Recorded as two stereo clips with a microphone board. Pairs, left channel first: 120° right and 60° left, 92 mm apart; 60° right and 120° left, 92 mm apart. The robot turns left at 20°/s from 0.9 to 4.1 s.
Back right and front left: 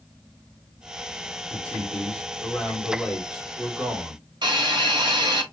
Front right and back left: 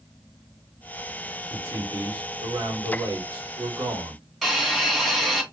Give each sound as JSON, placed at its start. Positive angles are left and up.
{"t": 1.5, "sound": "a man speaking", "azimuth_deg": 175, "distance_m": 2.5}
{"t": 4.4, "sound": "a hiss", "azimuth_deg": 30, "distance_m": 2.5}